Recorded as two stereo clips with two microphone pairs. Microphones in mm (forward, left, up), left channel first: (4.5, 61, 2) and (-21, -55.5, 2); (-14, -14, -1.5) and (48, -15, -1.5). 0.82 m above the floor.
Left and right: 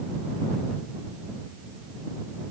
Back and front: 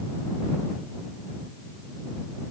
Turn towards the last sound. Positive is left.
No sound to turn to.